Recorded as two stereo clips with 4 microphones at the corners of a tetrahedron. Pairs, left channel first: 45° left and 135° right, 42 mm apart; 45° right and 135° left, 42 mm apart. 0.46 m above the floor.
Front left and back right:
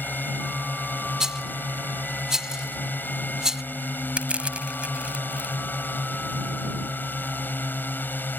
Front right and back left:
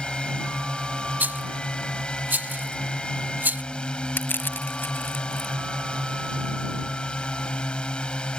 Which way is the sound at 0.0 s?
20° left.